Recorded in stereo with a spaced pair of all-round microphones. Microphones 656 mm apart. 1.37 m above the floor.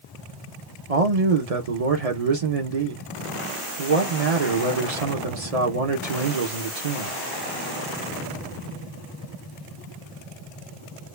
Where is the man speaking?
65° right (ahead or behind), 1.1 m.